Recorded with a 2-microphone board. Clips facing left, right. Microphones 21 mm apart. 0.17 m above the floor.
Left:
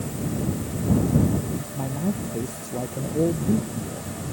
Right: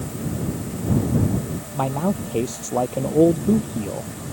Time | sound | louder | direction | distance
1.8 | a man speaking | right 7 dB | 60° right (ahead or behind) | ?